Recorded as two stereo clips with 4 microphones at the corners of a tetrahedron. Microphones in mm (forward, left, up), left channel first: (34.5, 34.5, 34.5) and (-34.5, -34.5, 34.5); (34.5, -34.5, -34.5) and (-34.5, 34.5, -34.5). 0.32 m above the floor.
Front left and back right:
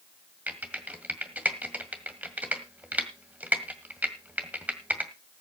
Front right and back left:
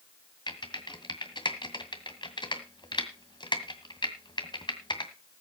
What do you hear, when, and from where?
0.5 s typing on a keyboard: 65° right, 1.8 m